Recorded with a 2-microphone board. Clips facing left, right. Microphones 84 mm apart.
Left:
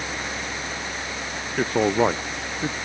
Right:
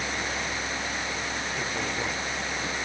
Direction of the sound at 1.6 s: 60° left (ahead or behind).